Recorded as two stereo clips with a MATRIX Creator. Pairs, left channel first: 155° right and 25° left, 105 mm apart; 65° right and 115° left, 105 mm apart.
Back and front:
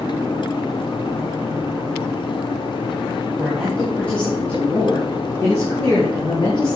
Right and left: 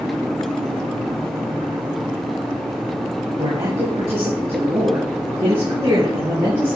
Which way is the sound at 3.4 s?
110° left.